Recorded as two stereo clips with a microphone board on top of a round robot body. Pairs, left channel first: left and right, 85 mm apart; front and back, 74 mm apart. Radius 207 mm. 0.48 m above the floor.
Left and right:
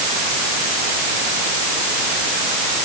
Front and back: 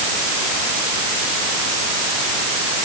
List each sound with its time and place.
Only background noise.